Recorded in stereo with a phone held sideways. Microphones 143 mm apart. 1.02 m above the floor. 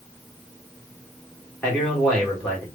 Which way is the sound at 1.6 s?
10° left (ahead or behind).